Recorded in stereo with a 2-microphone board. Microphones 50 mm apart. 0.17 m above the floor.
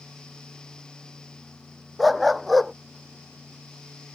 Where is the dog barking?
Centre (ahead or behind).